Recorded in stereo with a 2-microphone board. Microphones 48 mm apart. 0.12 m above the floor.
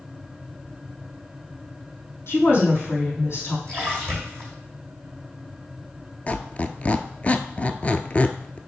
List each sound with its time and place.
2.3 s a woman speaking: 60° left (ahead or behind), 4.5 m
3.7 s a splash: 25° left (ahead or behind), 5 m
6.3 s a squeak: 30° left (ahead or behind), 0.5 m